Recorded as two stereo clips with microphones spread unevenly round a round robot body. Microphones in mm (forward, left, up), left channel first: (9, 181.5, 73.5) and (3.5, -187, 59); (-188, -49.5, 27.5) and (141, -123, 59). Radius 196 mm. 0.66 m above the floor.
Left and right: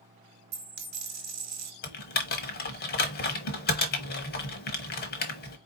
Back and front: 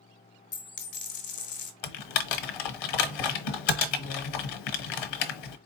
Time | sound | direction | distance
0.5 | a dropped coin | 140° right | 1.3 m
1.8 | typing on a keyboard | 155° left | 0.9 m